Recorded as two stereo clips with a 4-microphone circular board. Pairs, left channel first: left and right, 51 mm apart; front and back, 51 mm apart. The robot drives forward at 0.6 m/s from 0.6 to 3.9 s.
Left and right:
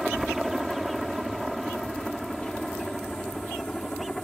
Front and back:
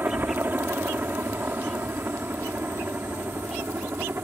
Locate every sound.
0.0 s a helicopter: 170° right; by 4.2 s 165° left